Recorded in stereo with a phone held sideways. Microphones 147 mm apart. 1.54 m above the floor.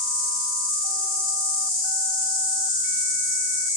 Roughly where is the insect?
Right.